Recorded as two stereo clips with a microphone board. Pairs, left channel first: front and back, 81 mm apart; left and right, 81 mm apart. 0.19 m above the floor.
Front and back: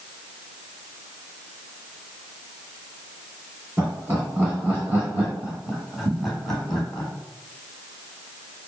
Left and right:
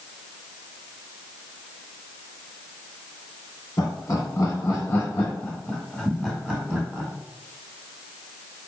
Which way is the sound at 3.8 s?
130° left.